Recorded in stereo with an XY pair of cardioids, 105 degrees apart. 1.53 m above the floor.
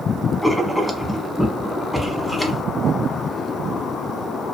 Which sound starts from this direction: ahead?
Writing, at 0.4 s.